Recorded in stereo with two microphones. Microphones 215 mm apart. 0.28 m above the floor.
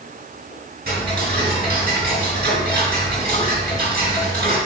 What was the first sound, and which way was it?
Ticking, 45° right (ahead or behind).